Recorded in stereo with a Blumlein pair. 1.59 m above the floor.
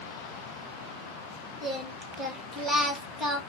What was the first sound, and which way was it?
Singing, straight ahead.